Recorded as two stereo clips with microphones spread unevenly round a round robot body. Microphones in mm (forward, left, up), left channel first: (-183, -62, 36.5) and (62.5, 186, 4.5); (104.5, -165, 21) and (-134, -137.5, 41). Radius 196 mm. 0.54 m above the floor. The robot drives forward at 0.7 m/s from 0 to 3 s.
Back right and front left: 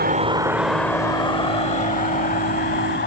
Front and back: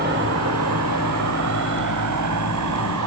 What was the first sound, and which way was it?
An insect, 110° left.